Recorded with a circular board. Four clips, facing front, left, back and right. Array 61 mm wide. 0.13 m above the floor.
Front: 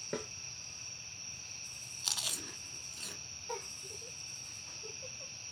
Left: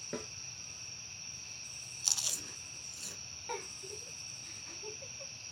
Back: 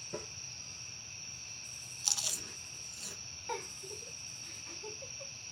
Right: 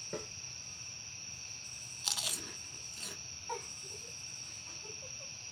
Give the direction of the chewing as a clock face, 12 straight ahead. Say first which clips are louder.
Right 3 dB, front 1 dB; 2 o'clock.